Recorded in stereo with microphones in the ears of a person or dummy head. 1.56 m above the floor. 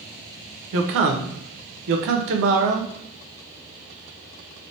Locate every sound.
0.7 s a man speaking: 60° right (ahead or behind), 0.6 m